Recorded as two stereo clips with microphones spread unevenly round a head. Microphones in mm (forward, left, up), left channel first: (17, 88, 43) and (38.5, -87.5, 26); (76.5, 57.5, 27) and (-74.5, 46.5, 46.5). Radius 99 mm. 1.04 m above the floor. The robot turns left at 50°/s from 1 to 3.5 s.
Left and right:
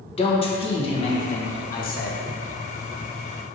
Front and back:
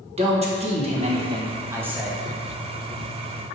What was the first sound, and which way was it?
A man speaking, 145° left.